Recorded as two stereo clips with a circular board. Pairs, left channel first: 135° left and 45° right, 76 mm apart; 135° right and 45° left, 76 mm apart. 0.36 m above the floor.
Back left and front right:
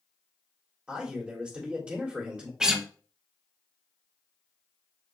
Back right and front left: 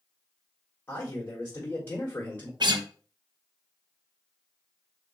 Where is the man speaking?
105° right, 1.6 m.